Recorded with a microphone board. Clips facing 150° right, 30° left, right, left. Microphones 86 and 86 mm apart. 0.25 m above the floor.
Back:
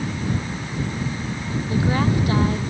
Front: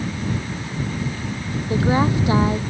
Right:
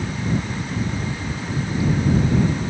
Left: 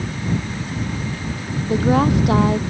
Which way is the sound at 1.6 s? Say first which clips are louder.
Front 3 dB, left 6 dB; 100° left.